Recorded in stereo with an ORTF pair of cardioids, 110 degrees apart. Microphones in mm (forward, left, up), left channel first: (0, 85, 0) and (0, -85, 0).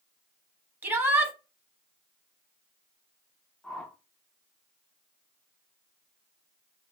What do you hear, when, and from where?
0.8 s a shout: 15° right, 1.0 m
3.6 s a whoosh: 5° left, 0.5 m